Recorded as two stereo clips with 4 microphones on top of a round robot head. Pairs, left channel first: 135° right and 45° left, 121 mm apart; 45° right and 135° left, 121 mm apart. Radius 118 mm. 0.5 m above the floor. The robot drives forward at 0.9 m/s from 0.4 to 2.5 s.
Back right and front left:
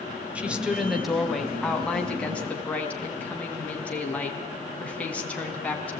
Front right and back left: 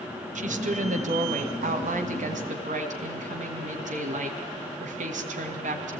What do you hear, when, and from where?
0.3 s a woman speaking: 125° left, 3 m; by 6.0 s 145° left, 4.5 m